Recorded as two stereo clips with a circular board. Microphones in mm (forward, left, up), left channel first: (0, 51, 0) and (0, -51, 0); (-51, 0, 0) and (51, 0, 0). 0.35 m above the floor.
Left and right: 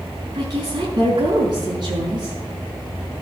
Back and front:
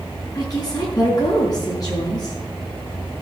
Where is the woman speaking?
130° right, 5 m.